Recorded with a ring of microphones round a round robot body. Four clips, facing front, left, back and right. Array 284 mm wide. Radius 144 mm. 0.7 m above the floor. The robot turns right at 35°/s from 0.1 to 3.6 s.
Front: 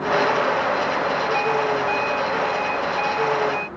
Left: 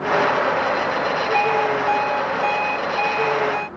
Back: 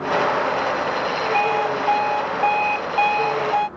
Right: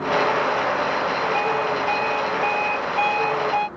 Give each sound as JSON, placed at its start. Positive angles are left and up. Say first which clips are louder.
{"t": 1.3, "sound": "an alarm clock", "louder": "left 3 dB, back 1 dB", "azimuth_deg": 125}